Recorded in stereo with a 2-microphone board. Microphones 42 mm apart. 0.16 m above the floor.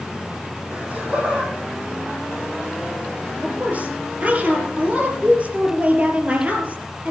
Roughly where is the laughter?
Right.